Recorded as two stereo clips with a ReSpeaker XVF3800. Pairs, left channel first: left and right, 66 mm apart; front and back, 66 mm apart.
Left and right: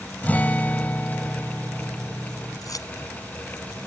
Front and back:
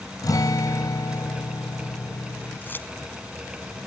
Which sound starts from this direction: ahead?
A guitar, at 0.2 s.